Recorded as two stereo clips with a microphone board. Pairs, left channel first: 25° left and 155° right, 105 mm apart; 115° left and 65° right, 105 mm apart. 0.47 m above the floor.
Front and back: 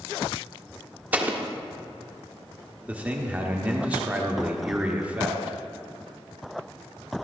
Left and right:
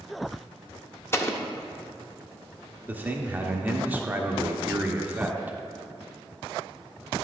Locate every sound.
1.1 s an explosion: 145° left, 0.6 m
2.9 s a man speaking: 105° right, 0.7 m